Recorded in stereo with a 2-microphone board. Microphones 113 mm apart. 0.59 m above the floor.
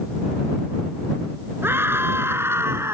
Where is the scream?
20° right (ahead or behind).